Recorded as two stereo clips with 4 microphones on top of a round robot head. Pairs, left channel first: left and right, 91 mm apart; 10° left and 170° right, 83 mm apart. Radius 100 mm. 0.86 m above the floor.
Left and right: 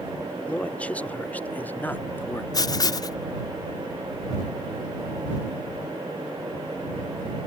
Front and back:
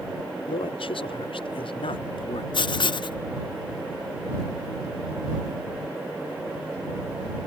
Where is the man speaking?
15° left; by 2.4 s 25° left.